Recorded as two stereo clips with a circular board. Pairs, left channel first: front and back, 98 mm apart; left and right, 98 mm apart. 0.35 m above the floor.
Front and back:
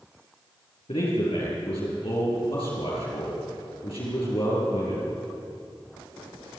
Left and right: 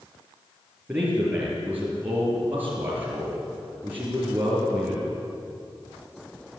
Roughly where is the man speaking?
Ahead.